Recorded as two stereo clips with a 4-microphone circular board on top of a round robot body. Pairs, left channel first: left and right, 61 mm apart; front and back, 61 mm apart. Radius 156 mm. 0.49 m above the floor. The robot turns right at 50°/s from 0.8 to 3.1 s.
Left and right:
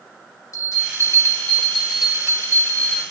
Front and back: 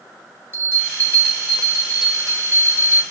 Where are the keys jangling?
No keys jangling in this recording.